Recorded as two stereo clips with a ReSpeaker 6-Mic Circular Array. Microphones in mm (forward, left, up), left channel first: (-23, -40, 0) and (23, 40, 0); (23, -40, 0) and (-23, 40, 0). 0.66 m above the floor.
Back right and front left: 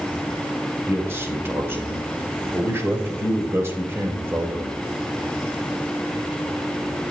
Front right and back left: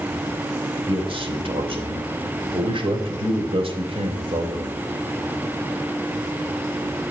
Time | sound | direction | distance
0.9 | a man speaking | 125° left | 3.5 m